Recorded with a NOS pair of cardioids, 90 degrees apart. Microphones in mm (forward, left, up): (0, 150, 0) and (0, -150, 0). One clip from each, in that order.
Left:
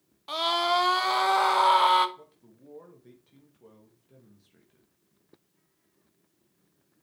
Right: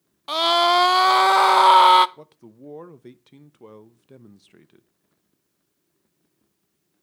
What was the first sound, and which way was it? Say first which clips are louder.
A scream: right 8 dB; 35° right.